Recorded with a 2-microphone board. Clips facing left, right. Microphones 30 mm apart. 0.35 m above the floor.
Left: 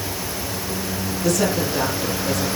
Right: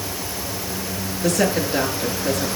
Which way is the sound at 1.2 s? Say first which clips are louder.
Right 1 dB; 65° right (ahead or behind).